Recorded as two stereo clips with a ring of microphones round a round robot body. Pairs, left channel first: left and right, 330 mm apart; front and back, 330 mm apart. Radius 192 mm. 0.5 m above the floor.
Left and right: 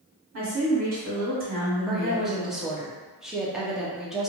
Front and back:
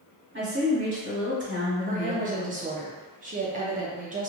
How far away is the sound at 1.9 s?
About 0.7 m.